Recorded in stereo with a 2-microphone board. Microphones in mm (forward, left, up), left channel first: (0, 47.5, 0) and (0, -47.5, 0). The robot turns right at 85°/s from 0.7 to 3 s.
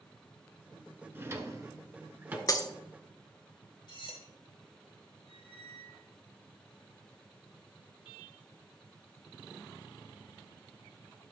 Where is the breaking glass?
35° left (ahead or behind), 0.8 m; by 2.7 s 40° left (ahead or behind), 0.8 m.